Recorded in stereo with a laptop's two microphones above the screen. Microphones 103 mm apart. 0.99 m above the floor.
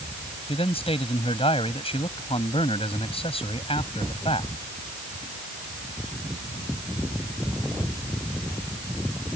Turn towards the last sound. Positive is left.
turn(degrees=65)  # may be behind; listen again after turning